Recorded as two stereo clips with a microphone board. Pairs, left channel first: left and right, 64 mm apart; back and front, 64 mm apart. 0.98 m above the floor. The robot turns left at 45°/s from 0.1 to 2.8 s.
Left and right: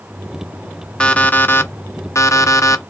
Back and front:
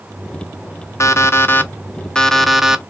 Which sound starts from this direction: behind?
An alarm clock, at 1.0 s.